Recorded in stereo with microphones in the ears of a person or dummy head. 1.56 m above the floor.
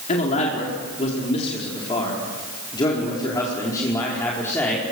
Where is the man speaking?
45° left (ahead or behind), 4.5 m; by 4.9 s 10° left (ahead or behind), 5 m.